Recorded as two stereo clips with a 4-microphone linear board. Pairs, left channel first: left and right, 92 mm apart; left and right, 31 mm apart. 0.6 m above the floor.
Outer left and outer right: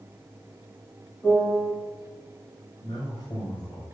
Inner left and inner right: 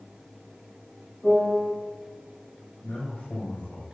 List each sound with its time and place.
1.2 s a piano: 30° left (ahead or behind), 4.5 m
2.8 s a man speaking: 60° left (ahead or behind), 3 m